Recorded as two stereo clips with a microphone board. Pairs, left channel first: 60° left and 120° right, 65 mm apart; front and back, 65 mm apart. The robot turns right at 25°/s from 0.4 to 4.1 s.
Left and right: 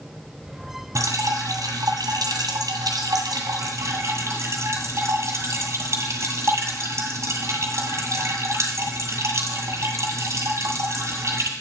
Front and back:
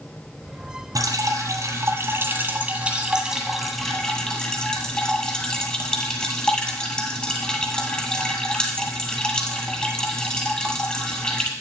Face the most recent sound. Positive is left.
turn(degrees=-75)